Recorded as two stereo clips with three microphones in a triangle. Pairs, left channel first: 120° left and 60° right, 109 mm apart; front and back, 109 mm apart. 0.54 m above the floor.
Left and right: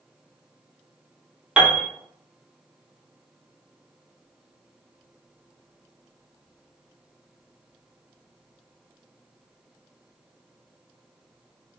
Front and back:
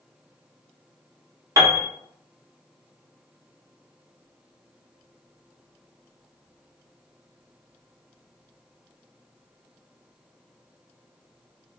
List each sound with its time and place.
1.6 s a piano: 140° right, 0.7 m